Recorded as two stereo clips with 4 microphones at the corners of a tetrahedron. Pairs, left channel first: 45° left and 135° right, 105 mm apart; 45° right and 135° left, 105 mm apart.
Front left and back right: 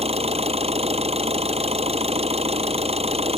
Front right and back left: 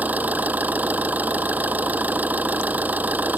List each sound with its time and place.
0.0 s an engine running: 150° right